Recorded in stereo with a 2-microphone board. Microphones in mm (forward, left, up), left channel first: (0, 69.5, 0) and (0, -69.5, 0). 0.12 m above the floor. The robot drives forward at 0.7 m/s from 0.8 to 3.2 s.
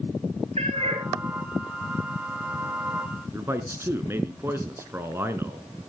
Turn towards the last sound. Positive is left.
turn(degrees=-15)  # may be behind; listen again after turning